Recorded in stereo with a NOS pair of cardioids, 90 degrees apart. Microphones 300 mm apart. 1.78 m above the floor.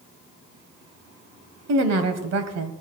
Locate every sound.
1.7 s a woman speaking: 55° right, 1.1 m